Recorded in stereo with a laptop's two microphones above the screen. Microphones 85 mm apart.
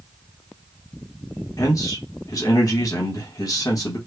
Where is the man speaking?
40° left (ahead or behind), 0.9 m.